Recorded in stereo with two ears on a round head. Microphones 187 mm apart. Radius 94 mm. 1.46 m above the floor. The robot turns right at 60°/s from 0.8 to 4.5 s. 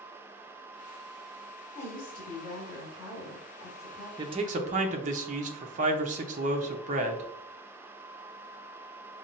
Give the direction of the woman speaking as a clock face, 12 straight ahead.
11 o'clock.